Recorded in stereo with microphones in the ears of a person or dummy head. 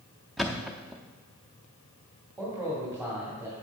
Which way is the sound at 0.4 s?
5° right (ahead or behind).